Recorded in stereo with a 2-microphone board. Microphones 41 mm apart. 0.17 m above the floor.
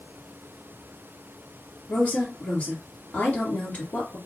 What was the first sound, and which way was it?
A woman speaking, 40° left (ahead or behind).